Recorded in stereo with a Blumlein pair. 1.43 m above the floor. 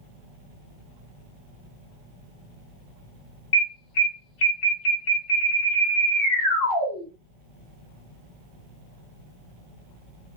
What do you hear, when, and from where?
3.5 s an alarm: 50° left, 1.0 m